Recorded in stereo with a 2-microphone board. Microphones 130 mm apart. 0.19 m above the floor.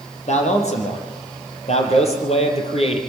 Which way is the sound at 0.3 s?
60° left (ahead or behind).